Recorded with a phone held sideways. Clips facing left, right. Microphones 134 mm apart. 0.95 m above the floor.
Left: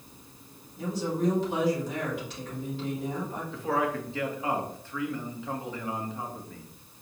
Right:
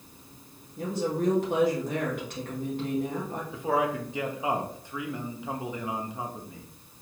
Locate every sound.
0.8 s a woman speaking: 55° right (ahead or behind), 1.4 m
3.5 s a man speaking: 15° right (ahead or behind), 0.9 m